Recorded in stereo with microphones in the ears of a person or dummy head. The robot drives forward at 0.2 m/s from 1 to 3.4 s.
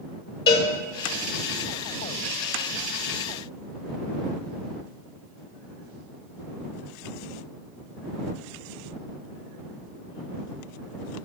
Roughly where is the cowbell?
Left.